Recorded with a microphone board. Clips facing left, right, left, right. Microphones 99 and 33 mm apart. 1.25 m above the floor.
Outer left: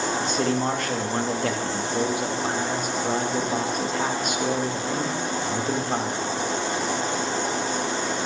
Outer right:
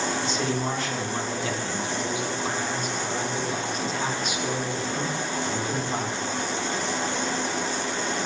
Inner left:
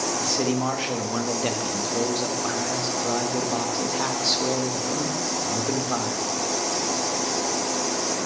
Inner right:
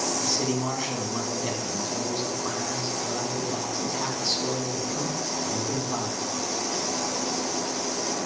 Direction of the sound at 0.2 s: 50° left (ahead or behind).